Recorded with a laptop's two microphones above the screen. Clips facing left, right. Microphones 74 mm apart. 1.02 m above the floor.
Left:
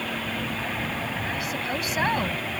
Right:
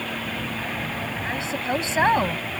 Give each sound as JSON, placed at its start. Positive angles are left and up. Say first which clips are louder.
{"t": 1.2, "sound": "a woman speaking", "louder": "right 3 dB", "side_deg": -30}